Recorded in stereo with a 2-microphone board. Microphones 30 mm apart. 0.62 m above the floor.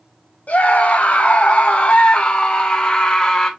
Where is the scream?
55° left (ahead or behind), 1.7 m; by 3.5 s 20° left (ahead or behind), 2 m.